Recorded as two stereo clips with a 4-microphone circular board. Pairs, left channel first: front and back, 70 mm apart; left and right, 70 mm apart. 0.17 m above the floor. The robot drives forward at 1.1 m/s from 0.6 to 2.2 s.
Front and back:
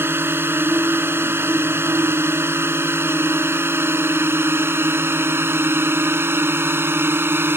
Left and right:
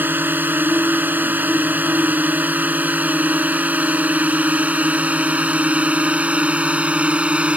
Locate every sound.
0.0 s a drone: 140° right; by 7.6 s 150° right